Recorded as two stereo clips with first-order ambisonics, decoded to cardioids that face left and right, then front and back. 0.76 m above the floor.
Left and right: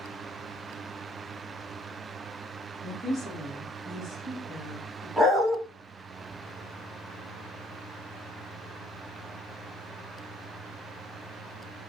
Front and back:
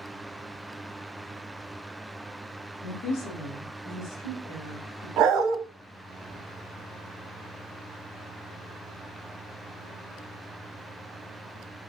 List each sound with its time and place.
2.8 s a woman speaking: 10° right, 1.4 m; by 5.1 s 10° left, 2.5 m
5.2 s a dog barking: 170° right, 0.8 m